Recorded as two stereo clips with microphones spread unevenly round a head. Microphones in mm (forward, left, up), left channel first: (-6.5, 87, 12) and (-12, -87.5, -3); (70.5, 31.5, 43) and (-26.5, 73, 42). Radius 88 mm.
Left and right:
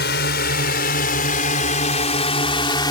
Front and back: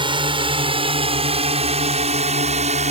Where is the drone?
120° left; by 2.9 s 155° left.